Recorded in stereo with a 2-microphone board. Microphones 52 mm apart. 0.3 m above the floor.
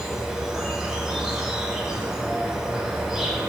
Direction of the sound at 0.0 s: 10° right (ahead or behind).